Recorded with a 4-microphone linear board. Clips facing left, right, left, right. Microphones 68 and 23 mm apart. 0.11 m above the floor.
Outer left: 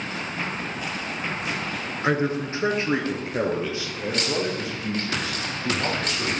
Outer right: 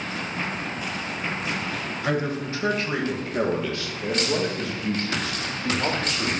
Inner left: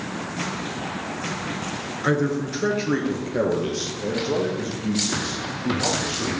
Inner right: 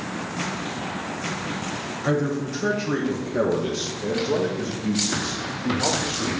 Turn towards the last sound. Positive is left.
turn(degrees=5)  # may be behind; listen again after turning